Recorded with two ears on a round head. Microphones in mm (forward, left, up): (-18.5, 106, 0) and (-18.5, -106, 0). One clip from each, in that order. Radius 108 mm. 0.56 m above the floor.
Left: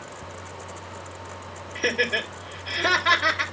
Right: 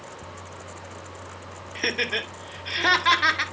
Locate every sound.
1.8 s laughter: 30° right (ahead or behind), 1.8 m